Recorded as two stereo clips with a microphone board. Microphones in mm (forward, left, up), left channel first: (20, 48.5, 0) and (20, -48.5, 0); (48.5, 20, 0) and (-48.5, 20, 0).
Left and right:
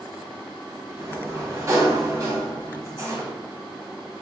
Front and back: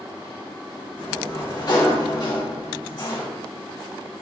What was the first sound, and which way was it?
A sliding door, 35° right.